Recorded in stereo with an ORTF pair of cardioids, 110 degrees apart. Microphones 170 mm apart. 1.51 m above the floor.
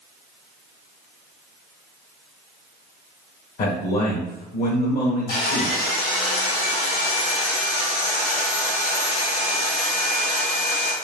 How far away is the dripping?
I don't hear dripping.